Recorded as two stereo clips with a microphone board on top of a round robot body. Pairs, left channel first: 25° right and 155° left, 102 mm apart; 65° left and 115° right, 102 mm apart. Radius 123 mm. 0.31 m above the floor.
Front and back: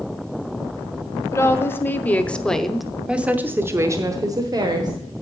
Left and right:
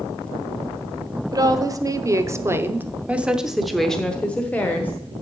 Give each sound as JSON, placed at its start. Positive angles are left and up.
{"t": 1.3, "sound": "a woman speaking", "azimuth_deg": -75, "distance_m": 1.3}